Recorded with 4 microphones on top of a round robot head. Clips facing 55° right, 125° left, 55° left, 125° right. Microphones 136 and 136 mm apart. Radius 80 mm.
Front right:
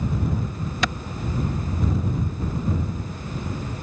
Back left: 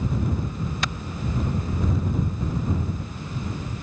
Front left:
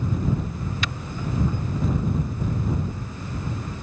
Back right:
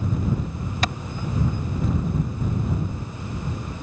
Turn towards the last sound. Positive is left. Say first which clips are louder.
# front right 8 dB, back right 5 dB
turn(degrees=-70)